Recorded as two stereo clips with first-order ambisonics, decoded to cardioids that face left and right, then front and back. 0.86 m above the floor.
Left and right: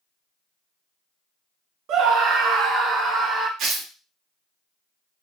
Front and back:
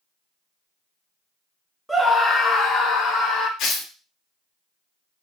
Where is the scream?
90° right, 0.5 m; by 3.5 s 35° right, 1.0 m.